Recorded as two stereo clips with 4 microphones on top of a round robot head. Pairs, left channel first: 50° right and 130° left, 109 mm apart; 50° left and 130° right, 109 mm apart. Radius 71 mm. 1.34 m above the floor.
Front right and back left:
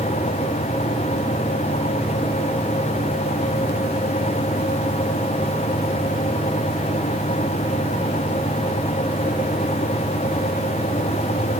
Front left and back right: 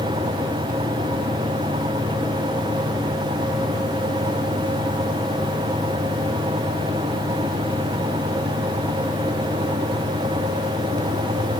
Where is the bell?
No bell in this recording.